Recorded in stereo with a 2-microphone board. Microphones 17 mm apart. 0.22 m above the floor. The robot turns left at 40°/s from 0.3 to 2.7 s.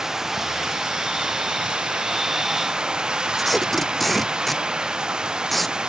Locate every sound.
0.0 s running water: 30° right; by 5.9 s 125° right
3.4 s tape being pulled: 10° left (ahead or behind)